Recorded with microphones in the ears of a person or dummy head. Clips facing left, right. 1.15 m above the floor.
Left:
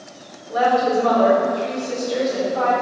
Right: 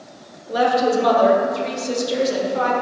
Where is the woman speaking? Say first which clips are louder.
Even; 50° right (ahead or behind), 1.7 m.